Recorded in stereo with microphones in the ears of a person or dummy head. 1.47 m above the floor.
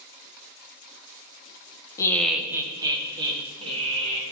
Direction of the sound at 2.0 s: 25° left (ahead or behind).